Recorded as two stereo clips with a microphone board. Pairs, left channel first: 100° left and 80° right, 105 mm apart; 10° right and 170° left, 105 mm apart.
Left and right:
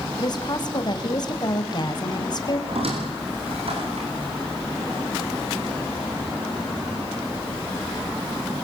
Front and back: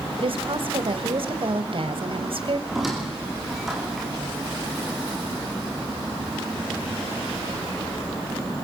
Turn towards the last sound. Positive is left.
turn(degrees=-100)